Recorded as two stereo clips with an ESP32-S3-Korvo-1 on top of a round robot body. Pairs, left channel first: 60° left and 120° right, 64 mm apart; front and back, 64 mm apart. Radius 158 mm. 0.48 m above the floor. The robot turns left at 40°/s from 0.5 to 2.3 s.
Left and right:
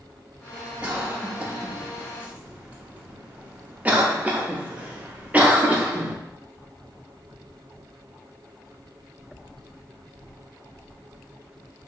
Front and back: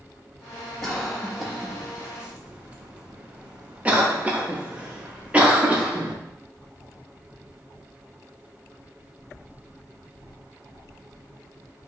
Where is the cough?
80° right, 0.7 m; by 6.2 s 140° right, 0.7 m.